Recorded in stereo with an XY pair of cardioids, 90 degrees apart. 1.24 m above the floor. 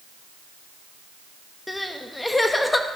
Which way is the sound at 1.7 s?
20° left.